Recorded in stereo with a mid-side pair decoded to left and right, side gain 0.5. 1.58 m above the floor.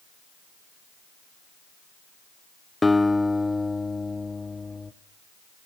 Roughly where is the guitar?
Ahead.